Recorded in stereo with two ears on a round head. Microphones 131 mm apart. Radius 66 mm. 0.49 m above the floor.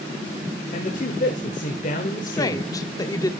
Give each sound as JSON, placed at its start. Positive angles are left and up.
{"t": 0.7, "sound": "a man speaking", "side_deg": 55, "distance_m": 1.6}
{"t": 2.3, "sound": "a woman speaking", "side_deg": 25, "distance_m": 1.2}